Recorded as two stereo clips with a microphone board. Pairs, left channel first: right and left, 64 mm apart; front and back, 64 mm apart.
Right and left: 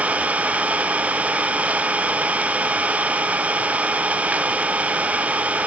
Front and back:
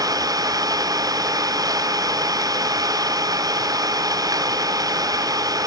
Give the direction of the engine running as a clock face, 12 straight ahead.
7 o'clock.